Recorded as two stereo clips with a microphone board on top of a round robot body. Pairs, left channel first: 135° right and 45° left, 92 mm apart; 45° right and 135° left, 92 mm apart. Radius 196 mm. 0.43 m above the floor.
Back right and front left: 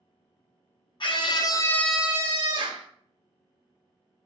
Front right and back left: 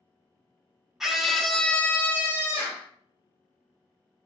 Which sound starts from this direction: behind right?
A scream, at 1.0 s.